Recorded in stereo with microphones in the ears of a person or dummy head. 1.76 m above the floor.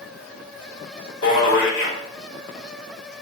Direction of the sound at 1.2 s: 70° left (ahead or behind).